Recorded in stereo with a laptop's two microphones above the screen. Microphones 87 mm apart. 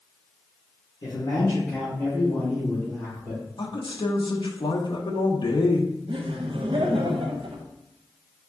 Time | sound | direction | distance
1.0 | a man speaking | 45° left (ahead or behind) | 1.1 m
3.6 | a man speaking | 60° left (ahead or behind) | 0.6 m
6.1 | laughter | 80° right | 0.5 m